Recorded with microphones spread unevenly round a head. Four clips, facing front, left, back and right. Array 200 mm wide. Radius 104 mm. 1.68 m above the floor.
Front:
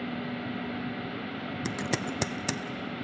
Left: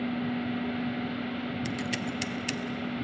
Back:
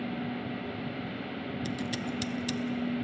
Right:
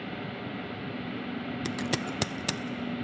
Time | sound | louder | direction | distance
1.6 | scissors | right 1 dB, front 4 dB | 40° right | 0.5 m